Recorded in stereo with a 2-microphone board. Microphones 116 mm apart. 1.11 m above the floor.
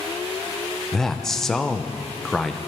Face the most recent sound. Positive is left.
turn(degrees=5)  # may be behind; listen again after turning